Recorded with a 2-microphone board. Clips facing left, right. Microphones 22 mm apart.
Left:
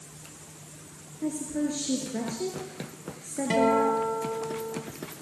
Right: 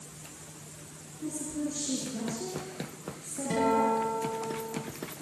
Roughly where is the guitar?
Left.